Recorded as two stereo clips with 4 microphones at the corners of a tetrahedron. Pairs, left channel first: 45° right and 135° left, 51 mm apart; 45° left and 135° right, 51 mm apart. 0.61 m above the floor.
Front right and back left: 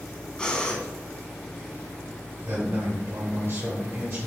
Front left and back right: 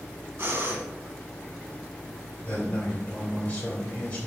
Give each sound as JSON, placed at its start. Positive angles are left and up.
{"t": 0.4, "sound": "breathing", "azimuth_deg": -115, "distance_m": 0.8}
{"t": 2.5, "sound": "a man speaking", "azimuth_deg": 100, "distance_m": 2.0}